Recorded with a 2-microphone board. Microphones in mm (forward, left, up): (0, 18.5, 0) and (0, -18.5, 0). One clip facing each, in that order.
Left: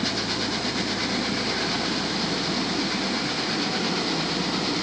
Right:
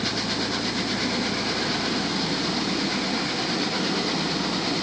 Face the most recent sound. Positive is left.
No sound to turn to.